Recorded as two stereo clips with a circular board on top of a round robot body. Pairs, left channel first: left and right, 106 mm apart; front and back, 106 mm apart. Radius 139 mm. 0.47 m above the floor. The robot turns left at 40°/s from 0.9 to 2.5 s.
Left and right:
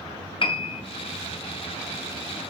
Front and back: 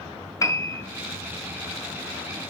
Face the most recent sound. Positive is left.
turn(degrees=-5)